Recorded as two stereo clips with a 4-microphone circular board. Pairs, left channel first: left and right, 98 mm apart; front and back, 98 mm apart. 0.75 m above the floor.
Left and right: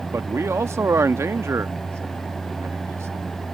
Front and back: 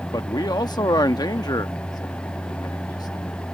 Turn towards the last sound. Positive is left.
turn(degrees=-35)